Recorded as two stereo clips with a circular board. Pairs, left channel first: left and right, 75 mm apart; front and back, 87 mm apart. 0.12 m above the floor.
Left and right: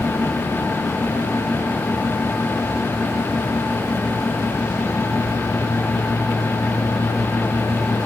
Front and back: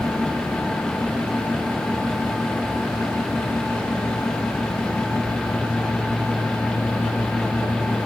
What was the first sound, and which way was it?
Only background noise.